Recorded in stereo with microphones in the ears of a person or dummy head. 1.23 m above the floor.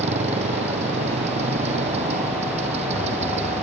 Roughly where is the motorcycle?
Right.